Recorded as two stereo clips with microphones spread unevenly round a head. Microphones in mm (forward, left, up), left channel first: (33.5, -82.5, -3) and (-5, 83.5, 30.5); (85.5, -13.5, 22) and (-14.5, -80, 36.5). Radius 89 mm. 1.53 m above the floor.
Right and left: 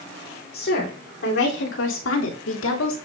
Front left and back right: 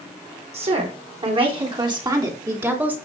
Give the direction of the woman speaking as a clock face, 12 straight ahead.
4 o'clock.